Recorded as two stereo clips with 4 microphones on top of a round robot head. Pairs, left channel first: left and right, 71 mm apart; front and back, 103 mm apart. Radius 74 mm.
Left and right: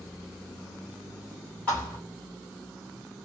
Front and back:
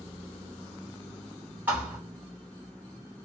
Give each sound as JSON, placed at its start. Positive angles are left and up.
{"t": 1.7, "sound": "a thud", "azimuth_deg": 140, "distance_m": 1.1}